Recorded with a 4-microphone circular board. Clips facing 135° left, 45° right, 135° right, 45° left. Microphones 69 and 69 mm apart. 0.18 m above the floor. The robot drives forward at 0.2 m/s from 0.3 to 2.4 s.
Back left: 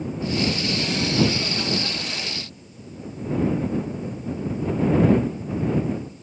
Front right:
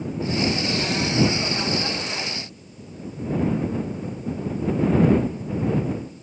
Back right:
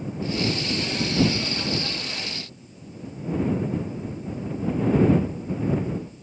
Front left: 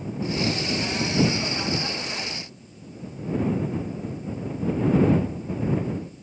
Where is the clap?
I don't hear a clap.